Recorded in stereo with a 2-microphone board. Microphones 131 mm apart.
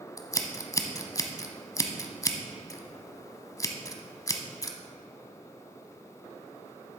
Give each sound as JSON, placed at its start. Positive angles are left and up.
{"t": 0.2, "sound": "scissors", "side_deg": 25, "distance_m": 0.7}